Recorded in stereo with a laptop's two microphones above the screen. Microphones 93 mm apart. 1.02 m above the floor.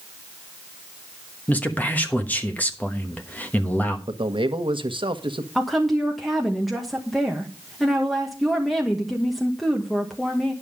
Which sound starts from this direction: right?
A man speaking, at 4.1 s.